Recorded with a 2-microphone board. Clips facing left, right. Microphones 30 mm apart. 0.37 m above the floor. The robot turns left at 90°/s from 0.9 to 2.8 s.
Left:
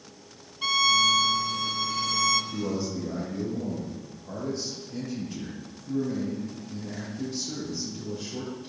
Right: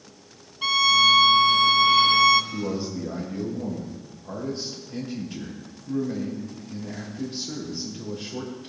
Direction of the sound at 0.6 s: 15° right.